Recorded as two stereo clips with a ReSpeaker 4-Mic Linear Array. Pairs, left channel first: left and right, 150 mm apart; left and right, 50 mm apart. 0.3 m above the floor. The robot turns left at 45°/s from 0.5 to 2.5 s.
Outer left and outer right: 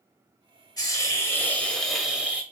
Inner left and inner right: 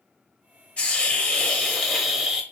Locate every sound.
0.8 s a hiss: 55° left, 1.1 m; by 2.4 s 20° right, 1.1 m